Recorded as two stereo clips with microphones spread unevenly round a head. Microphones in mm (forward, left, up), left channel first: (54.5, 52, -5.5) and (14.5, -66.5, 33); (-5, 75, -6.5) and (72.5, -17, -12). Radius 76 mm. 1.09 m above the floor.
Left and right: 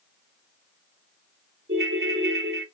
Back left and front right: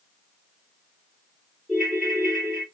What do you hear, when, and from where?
1.7 s a ringtone: 135° right, 1.8 m